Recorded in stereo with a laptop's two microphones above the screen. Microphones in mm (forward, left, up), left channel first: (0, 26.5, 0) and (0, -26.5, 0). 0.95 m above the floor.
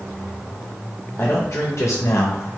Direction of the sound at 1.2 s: 35° left (ahead or behind).